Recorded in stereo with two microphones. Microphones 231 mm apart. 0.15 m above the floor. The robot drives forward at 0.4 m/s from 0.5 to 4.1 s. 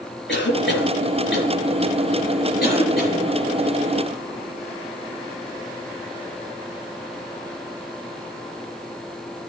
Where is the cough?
50° left (ahead or behind), 3 m; by 3.3 s 40° left (ahead or behind), 3.5 m.